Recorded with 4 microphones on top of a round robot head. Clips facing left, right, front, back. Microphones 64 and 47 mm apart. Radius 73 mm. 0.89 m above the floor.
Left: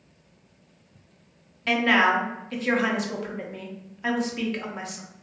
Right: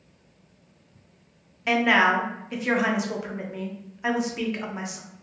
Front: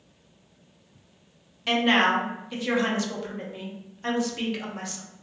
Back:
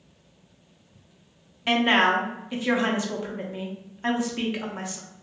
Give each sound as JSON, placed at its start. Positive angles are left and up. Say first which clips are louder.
{"t": 1.7, "sound": "a woman speaking", "louder": "right 1 dB, back 1 dB", "azimuth_deg": -150, "distance_m": 0.6}